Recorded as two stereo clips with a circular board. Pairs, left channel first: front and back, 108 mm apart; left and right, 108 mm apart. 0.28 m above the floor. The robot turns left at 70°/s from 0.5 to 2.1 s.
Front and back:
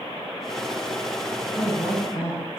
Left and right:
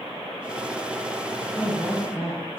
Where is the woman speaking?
25° left, 1.8 m; by 2.6 s 15° right, 1.8 m.